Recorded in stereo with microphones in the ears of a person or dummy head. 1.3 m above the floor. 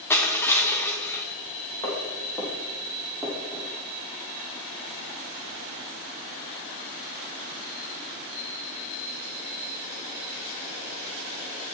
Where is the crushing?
10° left (ahead or behind), 0.9 m.